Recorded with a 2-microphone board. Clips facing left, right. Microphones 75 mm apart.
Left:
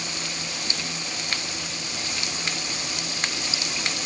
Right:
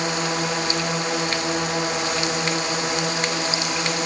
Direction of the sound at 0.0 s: 75° right (ahead or behind).